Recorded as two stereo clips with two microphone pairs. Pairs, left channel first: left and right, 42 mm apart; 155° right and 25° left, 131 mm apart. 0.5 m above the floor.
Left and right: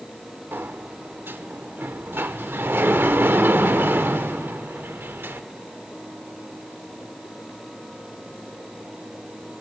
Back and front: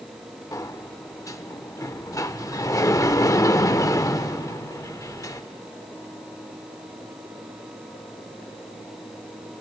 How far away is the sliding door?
About 0.5 m.